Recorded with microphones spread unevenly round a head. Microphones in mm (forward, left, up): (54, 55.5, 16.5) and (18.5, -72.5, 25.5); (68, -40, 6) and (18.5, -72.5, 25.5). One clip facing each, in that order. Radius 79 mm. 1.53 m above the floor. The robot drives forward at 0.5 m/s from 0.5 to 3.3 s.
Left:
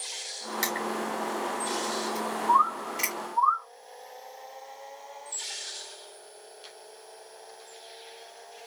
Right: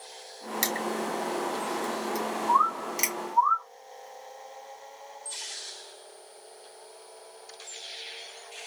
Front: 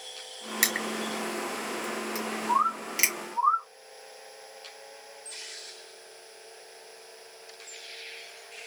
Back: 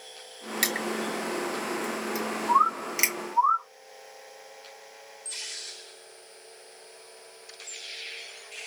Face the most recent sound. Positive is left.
turn(degrees=165)